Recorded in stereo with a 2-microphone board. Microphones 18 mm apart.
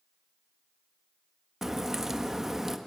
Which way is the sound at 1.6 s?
20° right (ahead or behind).